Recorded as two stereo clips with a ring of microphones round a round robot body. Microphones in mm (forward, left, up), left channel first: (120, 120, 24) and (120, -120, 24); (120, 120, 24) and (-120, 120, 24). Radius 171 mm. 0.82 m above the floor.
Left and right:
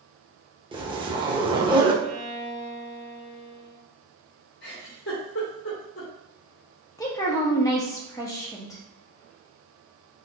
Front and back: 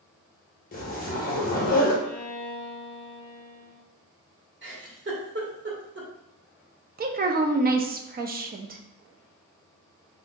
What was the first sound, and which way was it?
A zipper, 30° right.